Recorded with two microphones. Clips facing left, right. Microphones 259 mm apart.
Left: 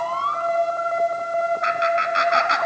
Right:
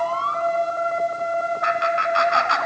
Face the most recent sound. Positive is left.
turn(degrees=20)  # may be behind; listen again after turning